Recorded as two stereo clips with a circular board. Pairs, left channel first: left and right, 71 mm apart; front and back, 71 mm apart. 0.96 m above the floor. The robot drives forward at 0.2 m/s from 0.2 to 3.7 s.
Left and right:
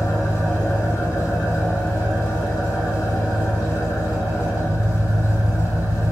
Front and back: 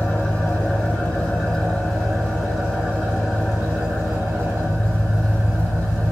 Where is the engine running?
70° left, 0.9 m; by 6.1 s 115° left, 0.9 m.